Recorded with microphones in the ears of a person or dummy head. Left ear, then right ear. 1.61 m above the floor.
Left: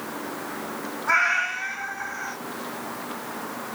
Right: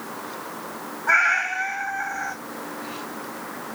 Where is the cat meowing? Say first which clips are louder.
Right 2 dB; 15° right (ahead or behind), 2.0 m.